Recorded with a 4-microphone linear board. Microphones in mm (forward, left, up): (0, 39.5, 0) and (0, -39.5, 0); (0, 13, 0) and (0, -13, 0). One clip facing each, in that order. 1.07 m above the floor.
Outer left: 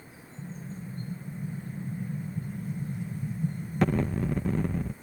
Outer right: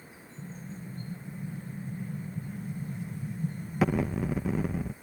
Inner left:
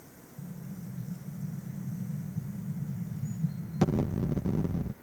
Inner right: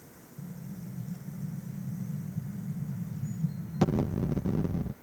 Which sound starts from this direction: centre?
An explosion, at 0.4 s.